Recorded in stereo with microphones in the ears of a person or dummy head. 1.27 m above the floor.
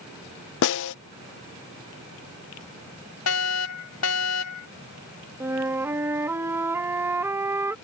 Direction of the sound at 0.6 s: 65° left (ahead or behind).